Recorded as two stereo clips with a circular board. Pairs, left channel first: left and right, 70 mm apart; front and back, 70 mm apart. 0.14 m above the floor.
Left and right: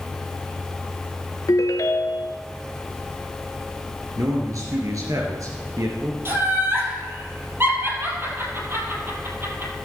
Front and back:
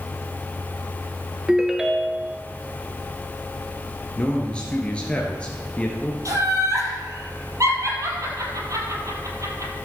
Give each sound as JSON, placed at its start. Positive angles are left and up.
{"t": 1.5, "sound": "a ringtone", "azimuth_deg": 105, "distance_m": 0.8}
{"t": 4.2, "sound": "a man speaking", "azimuth_deg": -70, "distance_m": 2.0}
{"t": 6.2, "sound": "laughter", "azimuth_deg": -145, "distance_m": 3.5}